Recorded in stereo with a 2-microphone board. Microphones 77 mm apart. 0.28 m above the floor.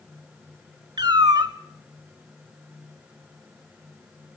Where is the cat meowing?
60° right (ahead or behind), 0.7 m.